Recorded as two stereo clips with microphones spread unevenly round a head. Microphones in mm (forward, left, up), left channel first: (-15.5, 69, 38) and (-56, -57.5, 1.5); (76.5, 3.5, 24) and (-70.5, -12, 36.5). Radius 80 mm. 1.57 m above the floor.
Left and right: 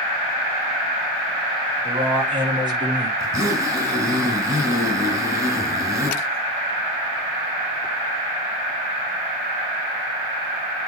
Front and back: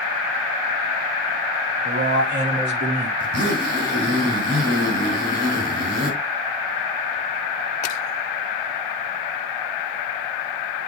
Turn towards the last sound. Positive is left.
turn(degrees=175)